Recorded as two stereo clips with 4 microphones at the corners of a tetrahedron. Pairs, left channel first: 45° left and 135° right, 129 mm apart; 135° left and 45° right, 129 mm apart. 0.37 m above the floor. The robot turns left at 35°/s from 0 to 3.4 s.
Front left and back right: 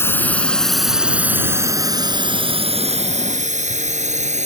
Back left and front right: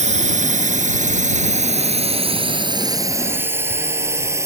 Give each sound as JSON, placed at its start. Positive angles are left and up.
{"t": 0.0, "sound": "a drone", "azimuth_deg": -25}